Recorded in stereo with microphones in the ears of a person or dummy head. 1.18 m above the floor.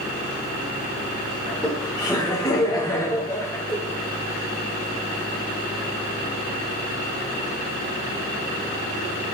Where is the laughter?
20° left (ahead or behind), 4.5 m; by 3.8 s 15° left (ahead or behind), 3 m.